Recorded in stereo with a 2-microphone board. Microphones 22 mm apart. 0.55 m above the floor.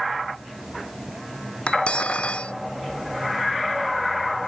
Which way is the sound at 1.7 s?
65° left (ahead or behind).